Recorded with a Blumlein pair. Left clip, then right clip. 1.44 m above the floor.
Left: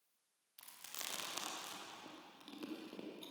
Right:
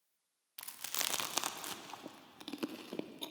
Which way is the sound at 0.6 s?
30° right.